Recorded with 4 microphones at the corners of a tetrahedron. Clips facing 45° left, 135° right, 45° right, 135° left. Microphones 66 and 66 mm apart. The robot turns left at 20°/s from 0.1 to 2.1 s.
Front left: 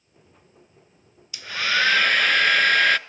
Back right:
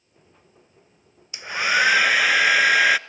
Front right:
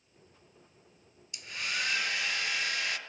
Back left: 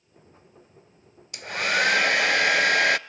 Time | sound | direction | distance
1.3 | a hair dryer | 160° left | 0.6 m